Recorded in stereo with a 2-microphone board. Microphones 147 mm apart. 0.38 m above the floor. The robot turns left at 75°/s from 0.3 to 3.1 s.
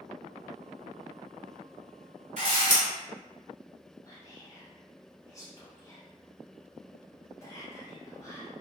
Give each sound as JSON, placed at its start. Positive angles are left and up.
{"t": 2.4, "sound": "a camera shutter", "azimuth_deg": -110, "distance_m": 1.6}
{"t": 4.0, "sound": "whispering", "side_deg": 20, "distance_m": 1.2}